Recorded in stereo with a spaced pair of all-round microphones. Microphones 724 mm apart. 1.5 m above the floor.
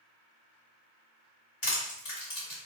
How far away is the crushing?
About 2.0 m.